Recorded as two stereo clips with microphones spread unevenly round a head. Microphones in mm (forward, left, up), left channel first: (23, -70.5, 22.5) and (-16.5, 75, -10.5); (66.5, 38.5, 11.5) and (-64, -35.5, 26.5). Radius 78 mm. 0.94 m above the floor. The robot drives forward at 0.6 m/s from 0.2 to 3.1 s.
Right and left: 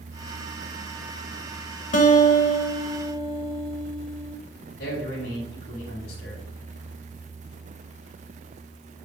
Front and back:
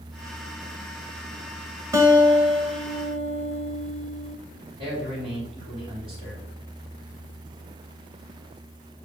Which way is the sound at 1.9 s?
80° right.